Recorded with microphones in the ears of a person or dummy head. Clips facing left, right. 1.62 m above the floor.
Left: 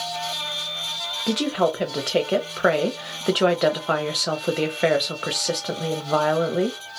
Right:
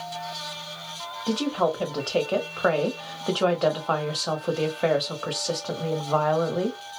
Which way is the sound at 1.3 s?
25° left (ahead or behind).